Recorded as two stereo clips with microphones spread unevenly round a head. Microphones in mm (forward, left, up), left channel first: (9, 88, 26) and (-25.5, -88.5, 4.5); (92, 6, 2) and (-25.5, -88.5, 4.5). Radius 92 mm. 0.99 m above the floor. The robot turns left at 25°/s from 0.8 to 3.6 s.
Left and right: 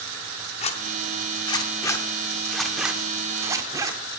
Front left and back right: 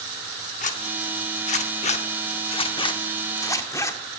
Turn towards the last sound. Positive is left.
turn(degrees=-25)